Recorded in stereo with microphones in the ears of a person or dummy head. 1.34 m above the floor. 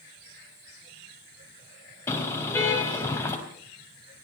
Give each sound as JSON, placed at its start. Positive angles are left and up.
{"t": 2.1, "sound": "a car horn", "side_deg": 15, "distance_m": 5.0}